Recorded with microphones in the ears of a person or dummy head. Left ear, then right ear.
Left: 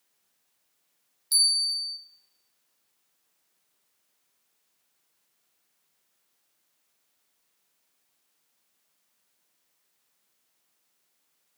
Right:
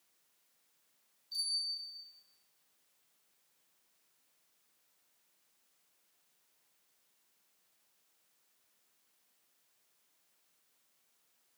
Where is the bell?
50° left (ahead or behind), 1.6 m.